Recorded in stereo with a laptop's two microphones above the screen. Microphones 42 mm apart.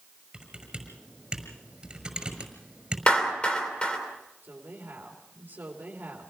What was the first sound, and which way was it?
Typing on a keyboard, 20° right (ahead or behind).